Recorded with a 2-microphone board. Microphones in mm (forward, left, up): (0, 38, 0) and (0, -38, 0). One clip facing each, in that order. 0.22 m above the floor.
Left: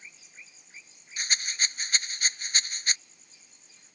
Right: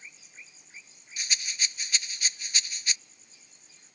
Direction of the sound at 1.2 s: 45° left (ahead or behind).